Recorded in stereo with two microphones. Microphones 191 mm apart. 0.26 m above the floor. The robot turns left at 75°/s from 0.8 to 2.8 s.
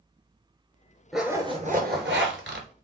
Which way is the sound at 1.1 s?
Straight ahead.